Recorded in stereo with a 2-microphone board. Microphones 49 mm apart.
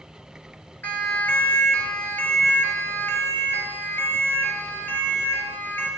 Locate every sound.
0.8 s a siren: 45° left (ahead or behind), 3 m; by 5.9 s 50° left (ahead or behind), 5 m